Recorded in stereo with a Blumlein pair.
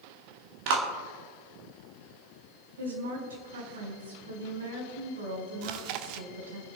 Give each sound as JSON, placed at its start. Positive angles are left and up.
{"t": 0.7, "sound": "a clap", "azimuth_deg": -45, "distance_m": 1.7}
{"t": 2.8, "sound": "a woman speaking", "azimuth_deg": -65, "distance_m": 4.5}
{"t": 5.6, "sound": "chewing", "azimuth_deg": -45, "distance_m": 0.7}